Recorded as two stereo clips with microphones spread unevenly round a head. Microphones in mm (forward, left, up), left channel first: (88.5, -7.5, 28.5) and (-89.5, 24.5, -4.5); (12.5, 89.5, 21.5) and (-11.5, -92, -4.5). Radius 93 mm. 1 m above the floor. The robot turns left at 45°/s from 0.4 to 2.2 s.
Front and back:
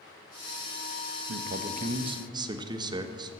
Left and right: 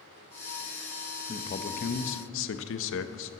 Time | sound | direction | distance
1.3 | a man speaking | 145° left | 0.7 m